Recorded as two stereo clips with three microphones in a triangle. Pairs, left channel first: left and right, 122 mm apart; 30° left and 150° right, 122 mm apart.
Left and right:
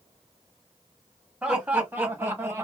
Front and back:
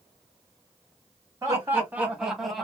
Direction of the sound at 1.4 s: 155° right.